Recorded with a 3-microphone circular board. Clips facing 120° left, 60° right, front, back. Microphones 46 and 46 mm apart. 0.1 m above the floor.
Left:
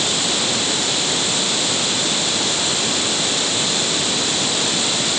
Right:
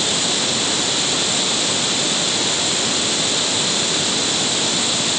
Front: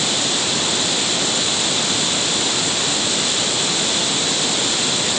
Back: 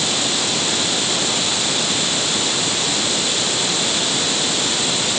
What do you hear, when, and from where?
Only background noise.